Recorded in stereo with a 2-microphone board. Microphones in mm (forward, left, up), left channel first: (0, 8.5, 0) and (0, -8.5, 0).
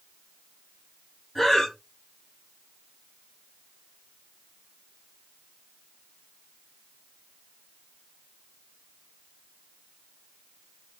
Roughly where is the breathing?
Left.